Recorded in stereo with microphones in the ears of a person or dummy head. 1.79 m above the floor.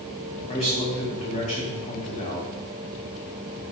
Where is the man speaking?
35° left (ahead or behind), 2.5 m.